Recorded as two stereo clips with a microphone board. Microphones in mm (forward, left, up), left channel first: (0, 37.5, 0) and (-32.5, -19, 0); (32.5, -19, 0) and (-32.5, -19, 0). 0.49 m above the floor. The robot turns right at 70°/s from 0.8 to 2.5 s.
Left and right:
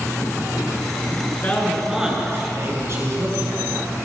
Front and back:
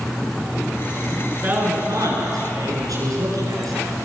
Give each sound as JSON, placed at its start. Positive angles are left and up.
{"t": 1.3, "sound": "a man speaking", "azimuth_deg": 115, "distance_m": 8.5}